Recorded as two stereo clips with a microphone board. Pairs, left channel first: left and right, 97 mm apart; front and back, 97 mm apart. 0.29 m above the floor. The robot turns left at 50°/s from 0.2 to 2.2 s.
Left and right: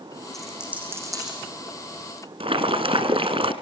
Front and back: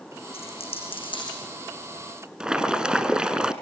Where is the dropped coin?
5° left, 9 m; by 1.4 s 50° right, 9 m.